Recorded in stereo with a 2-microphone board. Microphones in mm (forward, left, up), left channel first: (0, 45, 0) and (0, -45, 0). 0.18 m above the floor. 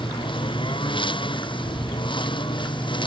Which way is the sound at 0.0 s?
70° left (ahead or behind).